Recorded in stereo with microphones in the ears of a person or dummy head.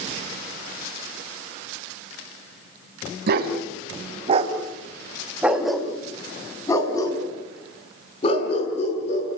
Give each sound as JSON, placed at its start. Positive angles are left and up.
{"t": 3.3, "sound": "a dog barking", "side_deg": -60, "distance_m": 3.5}